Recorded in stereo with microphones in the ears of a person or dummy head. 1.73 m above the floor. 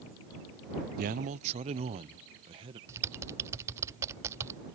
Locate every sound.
1.0 s a man speaking: 45° right (ahead or behind); by 2.8 s 25° right (ahead or behind)
2.9 s typing on a keyboard: 15° right (ahead or behind)